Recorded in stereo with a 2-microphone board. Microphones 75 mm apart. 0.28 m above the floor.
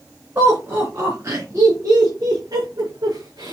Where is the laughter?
35° right (ahead or behind), 4.5 m; by 3.5 s 65° right (ahead or behind), 4.5 m.